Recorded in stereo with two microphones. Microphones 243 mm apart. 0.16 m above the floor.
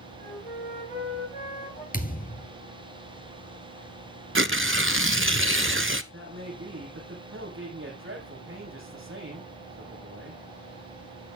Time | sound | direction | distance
0.2 | a flute | 30° left (ahead or behind) | 6.5 m
1.9 | a thud | 35° left (ahead or behind) | 1.2 m
4.3 | tearing paper | 55° right (ahead or behind) | 0.6 m
6.1 | a man speaking | 55° right (ahead or behind) | 6.5 m